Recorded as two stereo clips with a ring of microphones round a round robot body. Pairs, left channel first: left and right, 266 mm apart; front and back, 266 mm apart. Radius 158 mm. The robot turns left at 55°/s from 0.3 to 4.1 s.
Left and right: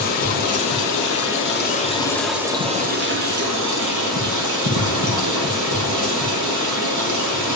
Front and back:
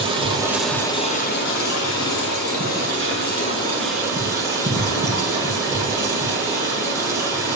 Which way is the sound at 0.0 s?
110° left.